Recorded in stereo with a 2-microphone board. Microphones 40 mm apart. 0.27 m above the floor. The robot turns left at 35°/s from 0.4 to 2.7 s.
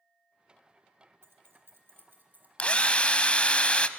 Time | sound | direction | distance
1.2 | keys jangling | 75° right (ahead or behind) | 3 m
2.6 | a drill | 35° left (ahead or behind) | 0.7 m